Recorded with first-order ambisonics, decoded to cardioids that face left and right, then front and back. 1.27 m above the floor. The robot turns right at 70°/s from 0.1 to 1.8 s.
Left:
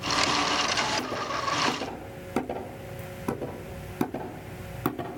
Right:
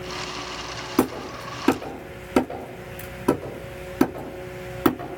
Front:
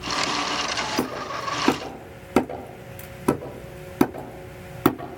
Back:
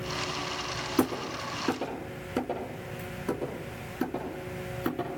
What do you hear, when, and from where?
1.0 s hammering: 75° right, 4 m; by 5.2 s 20° right, 4 m